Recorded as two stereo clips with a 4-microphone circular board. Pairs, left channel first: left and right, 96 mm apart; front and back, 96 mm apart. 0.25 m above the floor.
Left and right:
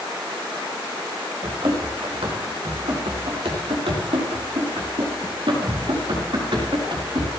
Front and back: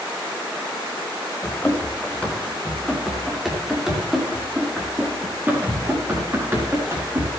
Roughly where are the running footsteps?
Right.